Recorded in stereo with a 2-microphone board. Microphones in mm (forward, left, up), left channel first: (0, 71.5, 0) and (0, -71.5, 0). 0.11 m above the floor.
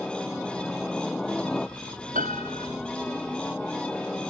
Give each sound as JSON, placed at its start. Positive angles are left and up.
{"t": 0.0, "sound": "a helicopter", "side_deg": 5}
{"t": 2.1, "sound": "a piano", "side_deg": -70}